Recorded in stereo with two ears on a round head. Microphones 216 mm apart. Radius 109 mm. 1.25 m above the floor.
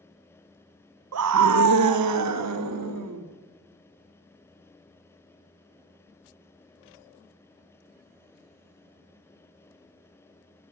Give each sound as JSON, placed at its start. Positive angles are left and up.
{"t": 1.1, "sound": "a scream", "side_deg": -65, "distance_m": 0.9}